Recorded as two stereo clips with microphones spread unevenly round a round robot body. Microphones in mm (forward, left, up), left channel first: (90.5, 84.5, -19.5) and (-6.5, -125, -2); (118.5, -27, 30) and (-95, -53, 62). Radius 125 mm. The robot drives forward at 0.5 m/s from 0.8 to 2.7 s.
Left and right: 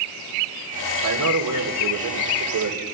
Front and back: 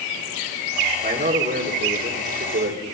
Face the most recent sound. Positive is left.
turn(degrees=-125)